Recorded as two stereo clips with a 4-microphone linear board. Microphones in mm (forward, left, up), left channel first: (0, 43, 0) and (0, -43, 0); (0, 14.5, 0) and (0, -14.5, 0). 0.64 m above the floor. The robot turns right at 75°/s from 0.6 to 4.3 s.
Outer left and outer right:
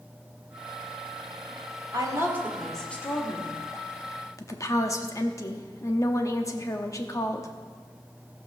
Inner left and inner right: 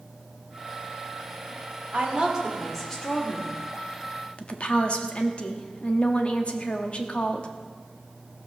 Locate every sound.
1.9 s a woman speaking: 55° right, 2 m; by 3.6 s 70° left, 2 m
4.4 s a woman speaking: 35° left (ahead or behind), 0.9 m